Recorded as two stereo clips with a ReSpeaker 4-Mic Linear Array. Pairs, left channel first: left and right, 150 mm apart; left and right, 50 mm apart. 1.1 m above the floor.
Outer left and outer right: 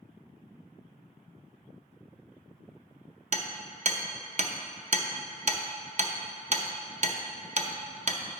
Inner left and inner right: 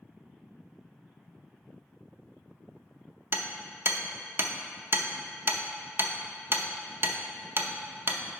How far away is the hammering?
About 0.6 m.